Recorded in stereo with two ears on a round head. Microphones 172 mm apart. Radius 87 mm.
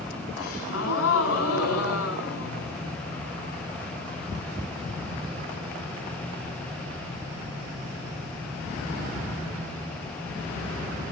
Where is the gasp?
80° left, 5.5 m.